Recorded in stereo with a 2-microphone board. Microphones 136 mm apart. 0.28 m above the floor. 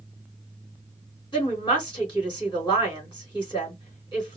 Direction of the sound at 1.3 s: 35° left (ahead or behind).